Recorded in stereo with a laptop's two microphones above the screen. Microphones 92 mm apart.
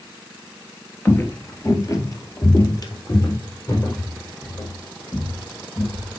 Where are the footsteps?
25° left (ahead or behind), 1.1 m; by 6.2 s 45° left (ahead or behind), 3 m.